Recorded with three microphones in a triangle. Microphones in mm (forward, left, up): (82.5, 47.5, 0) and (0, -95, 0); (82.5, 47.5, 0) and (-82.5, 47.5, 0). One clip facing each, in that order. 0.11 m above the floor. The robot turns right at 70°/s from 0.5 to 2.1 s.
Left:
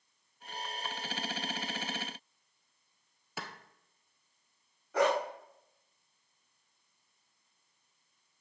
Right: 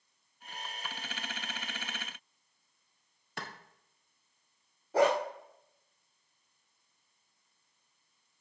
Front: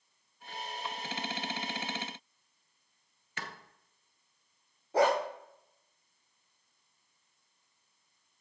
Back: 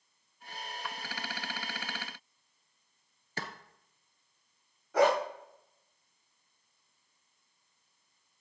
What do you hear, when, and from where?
3.4 s a clap: 145° left, 1.2 m
4.9 s a dog barking: 60° right, 3.5 m